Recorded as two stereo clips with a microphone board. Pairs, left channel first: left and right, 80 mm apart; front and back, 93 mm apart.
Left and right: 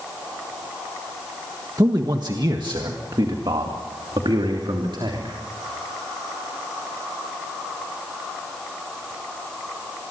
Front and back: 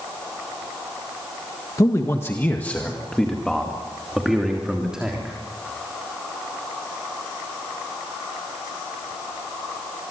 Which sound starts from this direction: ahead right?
A man speaking, at 1.8 s.